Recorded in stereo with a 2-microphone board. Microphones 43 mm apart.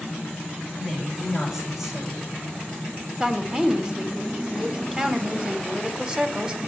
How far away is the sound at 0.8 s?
About 7 m.